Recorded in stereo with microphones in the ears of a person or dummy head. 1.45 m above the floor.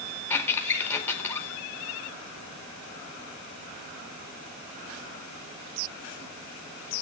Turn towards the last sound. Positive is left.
turn(degrees=15)  # may be behind; listen again after turning